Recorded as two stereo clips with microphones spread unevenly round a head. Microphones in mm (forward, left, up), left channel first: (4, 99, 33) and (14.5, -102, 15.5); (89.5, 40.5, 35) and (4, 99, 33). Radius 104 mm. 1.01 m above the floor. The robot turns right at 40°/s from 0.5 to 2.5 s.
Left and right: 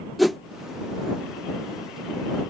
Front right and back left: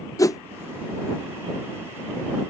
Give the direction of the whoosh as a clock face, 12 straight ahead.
12 o'clock.